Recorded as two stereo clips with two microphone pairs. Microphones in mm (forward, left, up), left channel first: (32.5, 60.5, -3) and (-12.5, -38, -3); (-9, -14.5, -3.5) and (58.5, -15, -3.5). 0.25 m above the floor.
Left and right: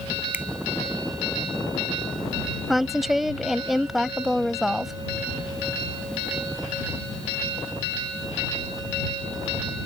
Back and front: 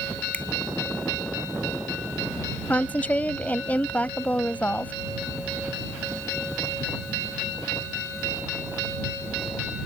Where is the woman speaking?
160° left.